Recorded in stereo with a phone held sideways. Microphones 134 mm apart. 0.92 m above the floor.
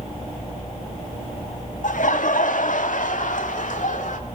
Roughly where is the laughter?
Left.